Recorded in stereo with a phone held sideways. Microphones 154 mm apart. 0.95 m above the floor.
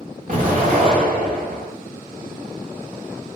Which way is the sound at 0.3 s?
65° right (ahead or behind).